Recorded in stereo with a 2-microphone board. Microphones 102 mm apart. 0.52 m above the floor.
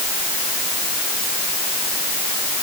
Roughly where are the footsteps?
No footsteps in this recording.